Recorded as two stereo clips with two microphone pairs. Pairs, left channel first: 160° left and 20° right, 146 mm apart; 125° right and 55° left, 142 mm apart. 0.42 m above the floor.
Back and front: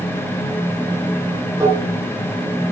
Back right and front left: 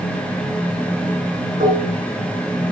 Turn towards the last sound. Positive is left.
turn(degrees=50)